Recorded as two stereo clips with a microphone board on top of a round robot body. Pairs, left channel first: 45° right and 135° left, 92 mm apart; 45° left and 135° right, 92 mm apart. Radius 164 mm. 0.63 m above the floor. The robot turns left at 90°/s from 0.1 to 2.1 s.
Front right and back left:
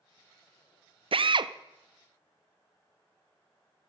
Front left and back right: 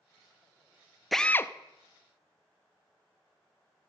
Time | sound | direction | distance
1.1 | a drill | 135° left | 0.6 m